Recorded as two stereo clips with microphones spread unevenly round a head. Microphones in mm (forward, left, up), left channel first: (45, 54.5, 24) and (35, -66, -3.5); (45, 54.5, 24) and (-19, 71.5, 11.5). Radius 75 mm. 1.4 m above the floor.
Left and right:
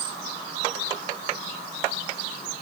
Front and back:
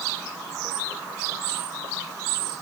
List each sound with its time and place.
Only background noise.